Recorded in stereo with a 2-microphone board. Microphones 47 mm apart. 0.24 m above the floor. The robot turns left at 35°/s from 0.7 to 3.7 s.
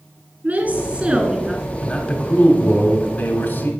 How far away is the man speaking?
About 1.2 m.